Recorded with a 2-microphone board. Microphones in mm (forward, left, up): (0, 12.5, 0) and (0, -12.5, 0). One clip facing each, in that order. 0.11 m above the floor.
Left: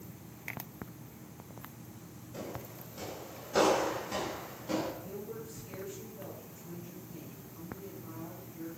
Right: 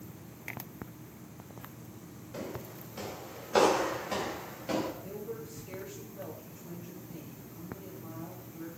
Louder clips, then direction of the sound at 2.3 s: Right 2 dB; 55° right (ahead or behind).